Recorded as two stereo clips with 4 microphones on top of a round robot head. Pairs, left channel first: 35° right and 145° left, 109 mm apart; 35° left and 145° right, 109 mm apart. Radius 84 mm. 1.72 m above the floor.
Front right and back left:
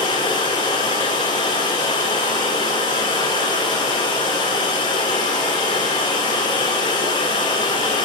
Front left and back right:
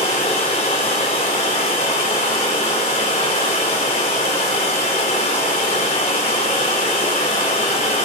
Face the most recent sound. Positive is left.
turn(degrees=5)